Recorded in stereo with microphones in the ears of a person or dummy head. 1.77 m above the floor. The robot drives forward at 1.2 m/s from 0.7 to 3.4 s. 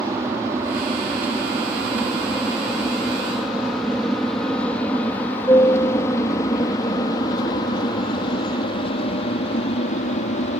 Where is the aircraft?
15° right (ahead or behind); by 10.6 s 35° left (ahead or behind).